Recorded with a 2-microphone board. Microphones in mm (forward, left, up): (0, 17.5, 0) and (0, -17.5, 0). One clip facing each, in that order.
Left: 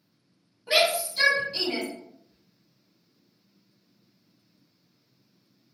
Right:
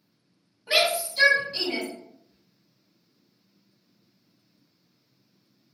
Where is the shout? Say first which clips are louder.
Even; centre (ahead or behind), 1.4 m.